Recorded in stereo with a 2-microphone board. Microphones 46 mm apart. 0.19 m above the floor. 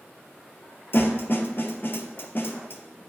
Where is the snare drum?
50° left (ahead or behind), 0.7 m.